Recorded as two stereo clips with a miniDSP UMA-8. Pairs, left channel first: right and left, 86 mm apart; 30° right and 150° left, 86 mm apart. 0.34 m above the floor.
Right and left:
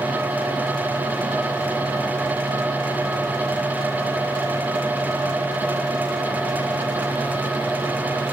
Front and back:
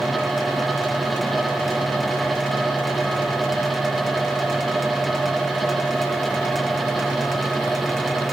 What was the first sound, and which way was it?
Only background noise.